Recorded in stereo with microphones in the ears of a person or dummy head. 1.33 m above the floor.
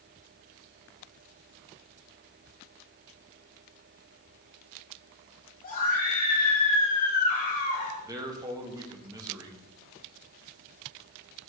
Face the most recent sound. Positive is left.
turn(degrees=-15)  # may be behind; listen again after turning